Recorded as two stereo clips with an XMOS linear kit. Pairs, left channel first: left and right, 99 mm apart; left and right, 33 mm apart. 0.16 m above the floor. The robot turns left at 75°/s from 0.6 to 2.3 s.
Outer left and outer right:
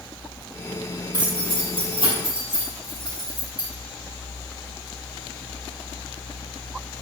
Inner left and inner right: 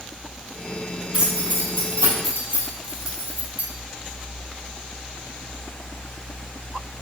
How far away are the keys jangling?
About 3 m.